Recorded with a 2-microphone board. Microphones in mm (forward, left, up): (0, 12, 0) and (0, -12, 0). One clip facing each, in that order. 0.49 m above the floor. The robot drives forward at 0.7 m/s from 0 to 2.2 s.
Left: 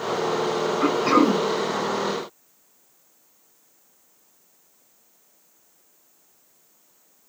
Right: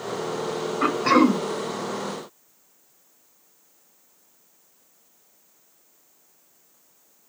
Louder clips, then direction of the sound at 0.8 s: Right 1 dB; 25° right (ahead or behind).